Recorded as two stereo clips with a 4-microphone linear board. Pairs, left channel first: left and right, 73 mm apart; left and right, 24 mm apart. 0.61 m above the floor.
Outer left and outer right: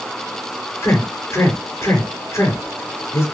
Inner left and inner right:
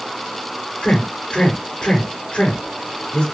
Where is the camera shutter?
No camera shutter in this recording.